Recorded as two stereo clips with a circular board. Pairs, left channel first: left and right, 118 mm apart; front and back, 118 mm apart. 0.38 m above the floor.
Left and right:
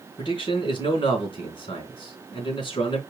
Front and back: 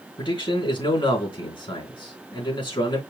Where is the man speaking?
45° left, 3.5 m.